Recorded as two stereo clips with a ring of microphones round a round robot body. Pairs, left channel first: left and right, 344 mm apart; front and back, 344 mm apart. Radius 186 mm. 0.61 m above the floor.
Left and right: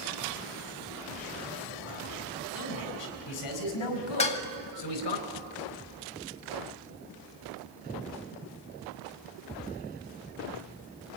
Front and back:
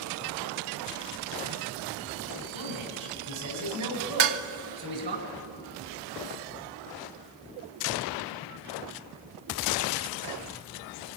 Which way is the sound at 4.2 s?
165° left.